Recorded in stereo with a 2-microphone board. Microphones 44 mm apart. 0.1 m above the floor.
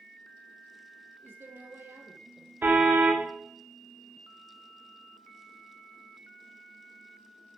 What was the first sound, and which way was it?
A woman speaking, 60° right (ahead or behind).